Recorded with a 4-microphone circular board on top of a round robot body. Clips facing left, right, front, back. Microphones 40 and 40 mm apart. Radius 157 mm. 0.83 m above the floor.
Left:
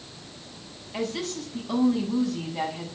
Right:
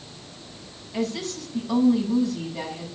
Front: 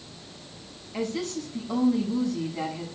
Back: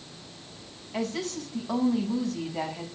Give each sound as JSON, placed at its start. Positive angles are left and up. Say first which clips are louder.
{"t": 0.9, "sound": "a woman speaking", "louder": "right 2 dB, front 1 dB", "azimuth_deg": 170, "distance_m": 8.0}